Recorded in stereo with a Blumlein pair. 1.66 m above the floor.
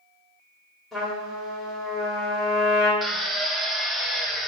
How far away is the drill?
About 0.5 m.